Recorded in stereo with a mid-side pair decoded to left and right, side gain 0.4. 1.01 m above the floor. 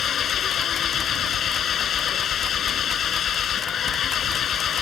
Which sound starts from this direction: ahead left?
An engine running, at 0.0 s.